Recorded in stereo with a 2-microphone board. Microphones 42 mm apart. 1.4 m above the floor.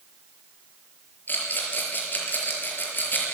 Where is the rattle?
50° left (ahead or behind), 5.5 m.